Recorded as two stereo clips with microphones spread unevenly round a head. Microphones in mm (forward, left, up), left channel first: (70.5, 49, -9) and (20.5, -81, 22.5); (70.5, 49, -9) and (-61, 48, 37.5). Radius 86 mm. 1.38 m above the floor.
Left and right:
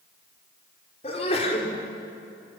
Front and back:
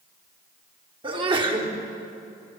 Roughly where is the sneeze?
Behind left.